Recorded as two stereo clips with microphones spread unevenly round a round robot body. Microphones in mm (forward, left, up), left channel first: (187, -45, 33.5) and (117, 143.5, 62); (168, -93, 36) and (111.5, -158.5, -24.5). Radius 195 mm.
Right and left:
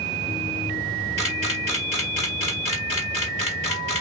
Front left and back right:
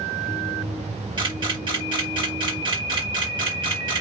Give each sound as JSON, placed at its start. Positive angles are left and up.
{"t": 1.2, "sound": "a camera shutter", "azimuth_deg": -145, "distance_m": 1.4}